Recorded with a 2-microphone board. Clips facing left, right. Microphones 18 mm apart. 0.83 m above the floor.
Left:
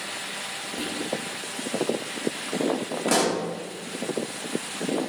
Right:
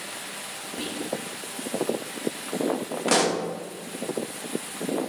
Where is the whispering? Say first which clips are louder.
Left 1 dB; 10° right (ahead or behind), 0.6 m.